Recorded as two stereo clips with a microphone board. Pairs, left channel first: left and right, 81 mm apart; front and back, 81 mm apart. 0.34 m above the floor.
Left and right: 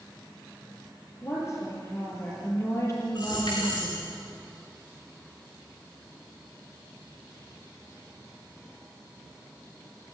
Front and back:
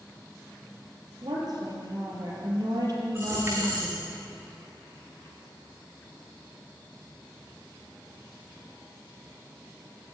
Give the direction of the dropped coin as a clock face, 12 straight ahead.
8 o'clock.